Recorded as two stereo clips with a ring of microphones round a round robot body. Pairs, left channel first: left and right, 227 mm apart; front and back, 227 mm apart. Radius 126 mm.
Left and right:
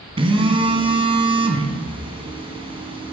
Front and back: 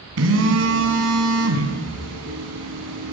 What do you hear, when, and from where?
0.2 s a phone buzzing: 160° right, 2.5 m